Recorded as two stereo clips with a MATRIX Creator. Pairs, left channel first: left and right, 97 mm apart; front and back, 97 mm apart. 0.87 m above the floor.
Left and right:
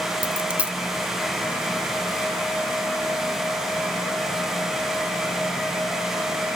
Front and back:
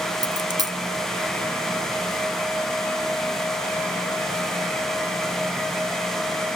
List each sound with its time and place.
0.2 s a dropped coin: 165° right, 1.0 m